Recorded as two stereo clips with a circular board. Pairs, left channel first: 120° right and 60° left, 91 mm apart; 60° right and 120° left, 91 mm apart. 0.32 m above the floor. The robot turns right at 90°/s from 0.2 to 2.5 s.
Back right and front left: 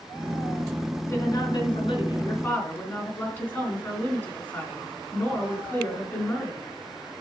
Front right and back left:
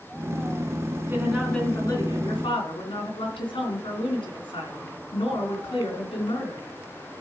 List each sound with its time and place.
1.0 s a woman speaking: 175° left, 3 m; by 6.7 s 50° right, 3 m